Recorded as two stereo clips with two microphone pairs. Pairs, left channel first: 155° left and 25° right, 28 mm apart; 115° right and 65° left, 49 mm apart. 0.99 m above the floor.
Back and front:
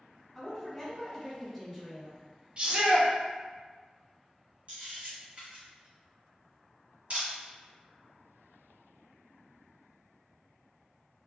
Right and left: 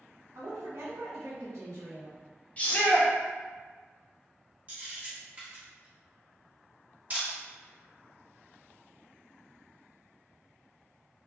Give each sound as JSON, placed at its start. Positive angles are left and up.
{"t": 0.3, "sound": "a woman speaking", "azimuth_deg": 75, "distance_m": 1.1}
{"t": 2.6, "sound": "a shout", "azimuth_deg": -65, "distance_m": 0.8}
{"t": 4.7, "sound": "a camera shutter", "azimuth_deg": 10, "distance_m": 1.1}